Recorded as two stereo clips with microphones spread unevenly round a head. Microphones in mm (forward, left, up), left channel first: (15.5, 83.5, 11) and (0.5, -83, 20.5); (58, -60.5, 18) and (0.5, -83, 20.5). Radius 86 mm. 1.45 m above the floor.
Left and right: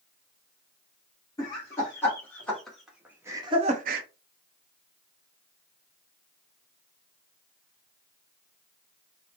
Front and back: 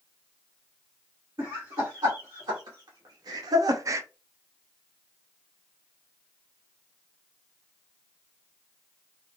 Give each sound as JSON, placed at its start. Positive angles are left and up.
{"t": 1.4, "sound": "laughter", "azimuth_deg": 160, "distance_m": 1.4}